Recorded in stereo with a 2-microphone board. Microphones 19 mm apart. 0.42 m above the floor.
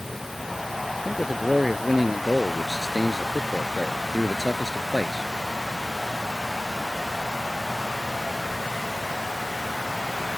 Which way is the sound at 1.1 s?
25° right (ahead or behind).